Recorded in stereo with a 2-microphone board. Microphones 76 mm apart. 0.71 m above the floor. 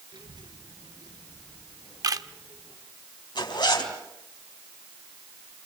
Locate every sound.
0.1 s a child speaking: 85° right, 6.5 m; by 2.8 s 75° right (ahead or behind), 7.5 m
2.0 s a camera shutter: 50° right (ahead or behind), 0.8 m
3.4 s a zipper: 70° left (ahead or behind), 3.5 m